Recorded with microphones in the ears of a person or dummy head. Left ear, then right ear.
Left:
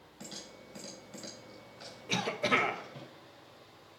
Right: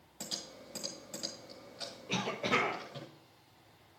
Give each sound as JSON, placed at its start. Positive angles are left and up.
{"t": 0.2, "sound": "typing on a keyboard", "side_deg": -25, "distance_m": 1.7}
{"t": 2.1, "sound": "a cough", "side_deg": 25, "distance_m": 1.4}